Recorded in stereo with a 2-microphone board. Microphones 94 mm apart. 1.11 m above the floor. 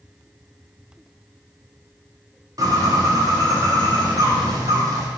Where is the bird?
45° right (ahead or behind), 0.6 m.